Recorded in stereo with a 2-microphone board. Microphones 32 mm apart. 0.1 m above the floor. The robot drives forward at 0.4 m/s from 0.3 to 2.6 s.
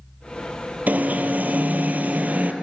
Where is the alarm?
60° right (ahead or behind), 1.9 m; by 2.5 s 55° right (ahead or behind), 1.9 m.